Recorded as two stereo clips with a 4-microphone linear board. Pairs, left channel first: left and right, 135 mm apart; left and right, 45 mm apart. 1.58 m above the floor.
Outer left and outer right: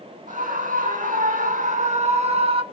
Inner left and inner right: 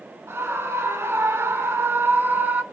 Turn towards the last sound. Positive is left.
turn(degrees=-45)  # may be behind; listen again after turning